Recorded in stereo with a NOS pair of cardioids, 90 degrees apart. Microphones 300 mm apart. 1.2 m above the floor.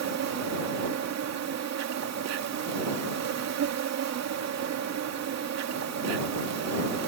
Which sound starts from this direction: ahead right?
An insect, at 0.0 s.